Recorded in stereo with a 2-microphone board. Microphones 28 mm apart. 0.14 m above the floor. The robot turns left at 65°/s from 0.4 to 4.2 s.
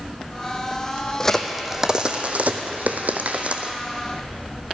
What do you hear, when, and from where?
1.2 s a crack: 20° left (ahead or behind), 1.4 m; by 3.7 s 35° right (ahead or behind), 1.4 m